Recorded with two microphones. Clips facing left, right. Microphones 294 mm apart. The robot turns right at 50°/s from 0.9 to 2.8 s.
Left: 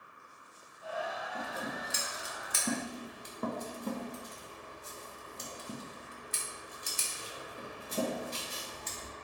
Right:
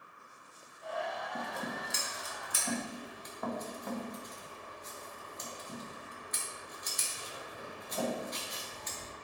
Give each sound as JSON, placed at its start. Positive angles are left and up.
{"t": 1.4, "sound": "scissors", "side_deg": -25, "distance_m": 0.8}